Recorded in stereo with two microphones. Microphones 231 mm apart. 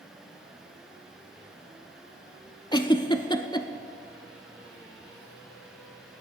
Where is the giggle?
20° left (ahead or behind), 0.5 m.